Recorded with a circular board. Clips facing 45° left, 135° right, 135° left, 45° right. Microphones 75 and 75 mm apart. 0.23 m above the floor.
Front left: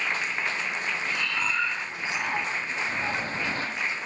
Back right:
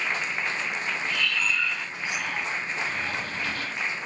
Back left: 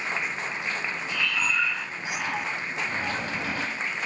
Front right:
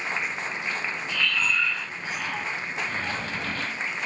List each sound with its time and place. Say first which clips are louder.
1.1 s breathing: back right 1 dB, front right 1 dB; 75° left, 0.6 m